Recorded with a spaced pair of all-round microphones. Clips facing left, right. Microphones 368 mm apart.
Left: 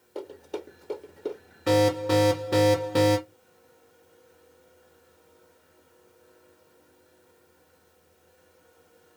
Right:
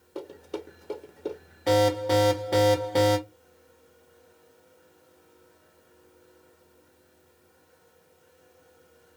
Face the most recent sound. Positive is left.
turn(degrees=20)  # may be behind; listen again after turning